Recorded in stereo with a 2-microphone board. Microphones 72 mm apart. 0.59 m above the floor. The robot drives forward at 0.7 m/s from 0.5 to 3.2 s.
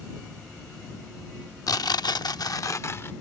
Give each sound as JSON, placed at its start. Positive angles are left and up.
{"t": 1.7, "sound": "tearing paper", "side_deg": 55}